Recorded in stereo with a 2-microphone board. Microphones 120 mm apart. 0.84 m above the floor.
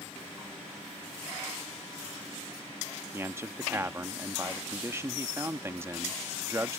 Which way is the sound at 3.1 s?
20° right (ahead or behind).